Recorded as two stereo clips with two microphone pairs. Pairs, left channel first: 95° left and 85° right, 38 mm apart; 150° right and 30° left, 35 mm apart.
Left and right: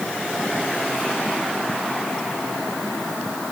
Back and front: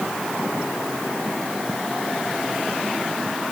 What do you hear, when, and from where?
Only background noise.